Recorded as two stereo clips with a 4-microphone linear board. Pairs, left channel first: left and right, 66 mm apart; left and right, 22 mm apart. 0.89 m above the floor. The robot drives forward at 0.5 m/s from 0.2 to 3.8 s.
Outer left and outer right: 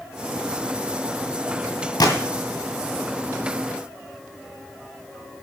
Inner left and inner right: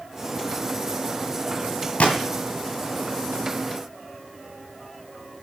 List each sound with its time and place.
2.0 s a gunshot: 75° left (ahead or behind), 2 m